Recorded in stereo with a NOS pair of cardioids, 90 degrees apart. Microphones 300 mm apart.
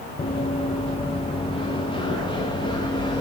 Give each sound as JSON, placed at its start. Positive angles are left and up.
{"t": 0.2, "sound": "running footsteps", "azimuth_deg": 20, "distance_m": 4.0}